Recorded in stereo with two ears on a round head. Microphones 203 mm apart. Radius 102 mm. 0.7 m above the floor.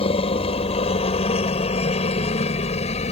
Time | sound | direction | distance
0.0 | a helicopter | 25° left (ahead or behind) | ?